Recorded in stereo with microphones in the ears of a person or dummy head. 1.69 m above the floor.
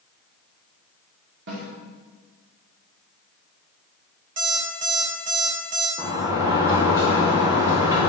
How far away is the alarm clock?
About 3.5 m.